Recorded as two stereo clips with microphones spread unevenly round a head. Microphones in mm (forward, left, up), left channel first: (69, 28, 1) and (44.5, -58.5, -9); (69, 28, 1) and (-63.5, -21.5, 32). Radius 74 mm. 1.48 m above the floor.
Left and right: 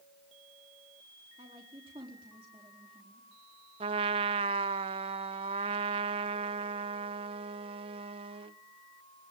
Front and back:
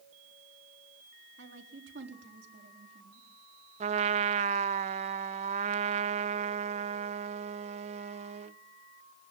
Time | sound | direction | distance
1.4 | a woman speaking | 165° right | 4 m
3.8 | a trumpet | 130° right | 0.6 m